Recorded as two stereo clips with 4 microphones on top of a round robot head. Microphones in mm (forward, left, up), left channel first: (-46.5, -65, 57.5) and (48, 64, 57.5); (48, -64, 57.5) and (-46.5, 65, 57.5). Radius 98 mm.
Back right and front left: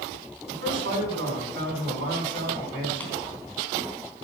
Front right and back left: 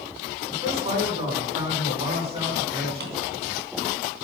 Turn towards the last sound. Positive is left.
turn(degrees=150)